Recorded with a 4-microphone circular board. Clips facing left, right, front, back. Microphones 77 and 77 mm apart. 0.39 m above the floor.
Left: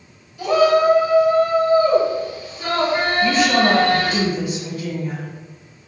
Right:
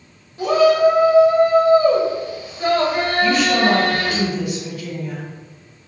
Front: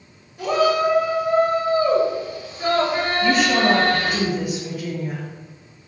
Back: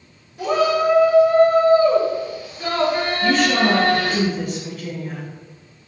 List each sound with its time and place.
0.4 s a shout: 95° right, 1.8 m; by 4.2 s 40° right, 2.5 m
3.2 s a woman speaking: 60° left, 1.6 m